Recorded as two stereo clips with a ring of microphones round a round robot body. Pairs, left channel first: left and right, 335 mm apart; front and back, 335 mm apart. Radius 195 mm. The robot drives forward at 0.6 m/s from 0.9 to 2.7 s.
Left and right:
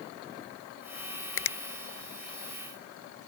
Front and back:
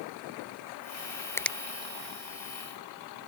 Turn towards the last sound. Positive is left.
turn(degrees=145)